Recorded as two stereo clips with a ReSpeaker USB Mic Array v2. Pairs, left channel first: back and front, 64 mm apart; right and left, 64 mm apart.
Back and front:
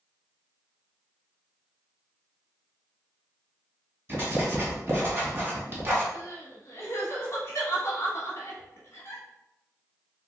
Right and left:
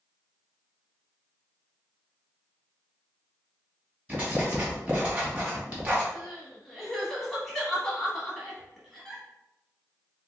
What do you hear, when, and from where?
4.1 s writing: 40° left, 1.9 m
6.1 s crying: 175° right, 1.1 m